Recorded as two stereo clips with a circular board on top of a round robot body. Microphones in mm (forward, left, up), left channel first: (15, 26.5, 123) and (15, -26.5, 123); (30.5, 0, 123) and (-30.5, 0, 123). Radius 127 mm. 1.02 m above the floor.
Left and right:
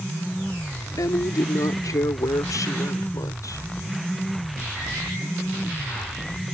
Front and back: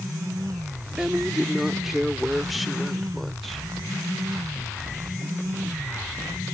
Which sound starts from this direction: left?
A woman speaking, at 1.0 s.